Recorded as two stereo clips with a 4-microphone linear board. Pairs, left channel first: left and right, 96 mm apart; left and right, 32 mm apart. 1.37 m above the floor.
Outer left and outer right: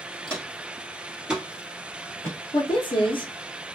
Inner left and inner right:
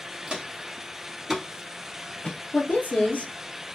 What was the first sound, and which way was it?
Footsteps, 35° right (ahead or behind).